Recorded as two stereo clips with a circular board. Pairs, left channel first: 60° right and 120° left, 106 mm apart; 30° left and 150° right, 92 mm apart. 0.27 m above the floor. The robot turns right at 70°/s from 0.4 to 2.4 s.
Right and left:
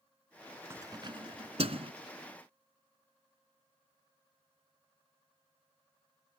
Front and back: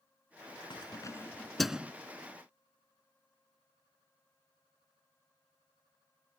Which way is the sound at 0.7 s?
55° left.